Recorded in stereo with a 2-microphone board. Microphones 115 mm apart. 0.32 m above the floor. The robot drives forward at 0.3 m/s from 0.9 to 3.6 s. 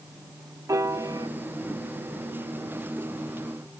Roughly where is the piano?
Right.